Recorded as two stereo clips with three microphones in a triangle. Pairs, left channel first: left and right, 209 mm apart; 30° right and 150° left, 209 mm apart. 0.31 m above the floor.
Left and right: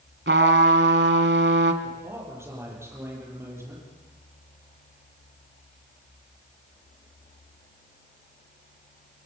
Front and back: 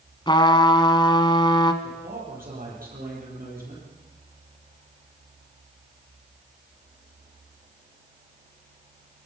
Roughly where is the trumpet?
Right.